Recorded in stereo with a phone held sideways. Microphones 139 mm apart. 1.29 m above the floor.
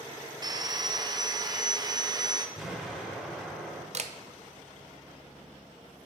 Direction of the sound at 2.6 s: 5° right (ahead or behind).